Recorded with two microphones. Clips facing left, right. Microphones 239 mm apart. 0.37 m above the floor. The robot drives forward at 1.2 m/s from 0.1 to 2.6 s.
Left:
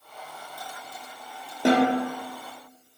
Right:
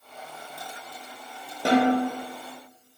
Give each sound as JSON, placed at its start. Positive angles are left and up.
{"t": 1.6, "sound": "a snare drum", "side_deg": 20, "distance_m": 2.5}